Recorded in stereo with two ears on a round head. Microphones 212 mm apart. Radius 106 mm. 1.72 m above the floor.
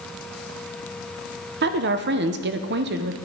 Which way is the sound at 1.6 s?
45° right (ahead or behind).